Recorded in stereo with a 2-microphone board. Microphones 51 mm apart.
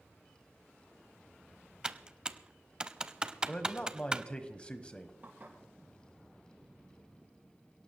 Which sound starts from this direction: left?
A man speaking, at 3.5 s.